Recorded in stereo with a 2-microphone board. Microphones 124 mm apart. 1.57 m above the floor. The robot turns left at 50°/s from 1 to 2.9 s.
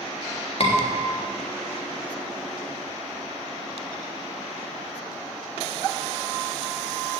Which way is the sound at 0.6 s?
50° left (ahead or behind).